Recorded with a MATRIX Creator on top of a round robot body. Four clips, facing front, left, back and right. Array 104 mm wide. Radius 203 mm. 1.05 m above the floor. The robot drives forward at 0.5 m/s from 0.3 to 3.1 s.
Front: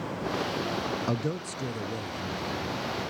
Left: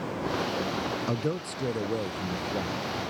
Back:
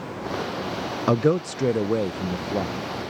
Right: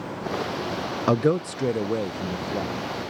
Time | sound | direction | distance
1.1 | a man speaking | 130° right | ?